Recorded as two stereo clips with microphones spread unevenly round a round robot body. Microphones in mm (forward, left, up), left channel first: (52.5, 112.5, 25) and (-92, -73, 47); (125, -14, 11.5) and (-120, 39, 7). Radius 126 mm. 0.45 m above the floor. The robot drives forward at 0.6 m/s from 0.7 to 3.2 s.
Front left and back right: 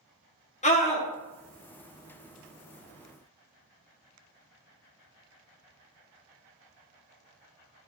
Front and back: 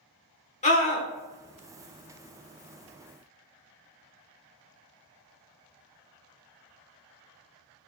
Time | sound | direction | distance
0.6 | a scream | 30° left | 1.3 m